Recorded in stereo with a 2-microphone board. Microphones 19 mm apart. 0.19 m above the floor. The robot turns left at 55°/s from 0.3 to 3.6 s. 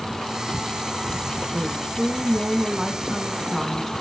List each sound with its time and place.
1.5 s a woman speaking: 70° right, 1.9 m; by 3.9 s 175° left, 1.9 m